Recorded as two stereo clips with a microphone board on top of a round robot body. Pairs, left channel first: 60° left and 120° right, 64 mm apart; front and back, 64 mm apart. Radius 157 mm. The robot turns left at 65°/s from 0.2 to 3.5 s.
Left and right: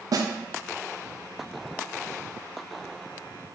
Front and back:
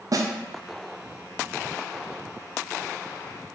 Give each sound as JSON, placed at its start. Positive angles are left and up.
{"t": 0.1, "sound": "a snare drum", "azimuth_deg": -150, "distance_m": 0.6}